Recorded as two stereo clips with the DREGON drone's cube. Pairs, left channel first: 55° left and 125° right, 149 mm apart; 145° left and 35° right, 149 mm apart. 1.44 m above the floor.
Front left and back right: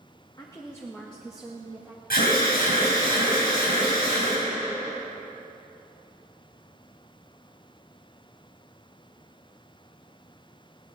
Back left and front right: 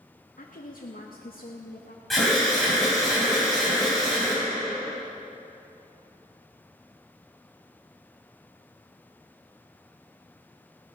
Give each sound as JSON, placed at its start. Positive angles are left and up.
{"t": 0.4, "sound": "a woman speaking", "azimuth_deg": 115, "distance_m": 1.4}
{"t": 2.1, "sound": "an alarm", "azimuth_deg": 55, "distance_m": 6.5}